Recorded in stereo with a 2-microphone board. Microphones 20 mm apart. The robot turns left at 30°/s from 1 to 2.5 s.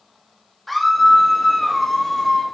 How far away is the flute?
I don't hear a flute.